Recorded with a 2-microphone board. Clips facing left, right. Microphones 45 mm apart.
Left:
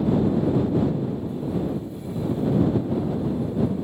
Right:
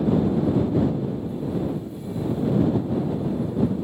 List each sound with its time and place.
Only background noise.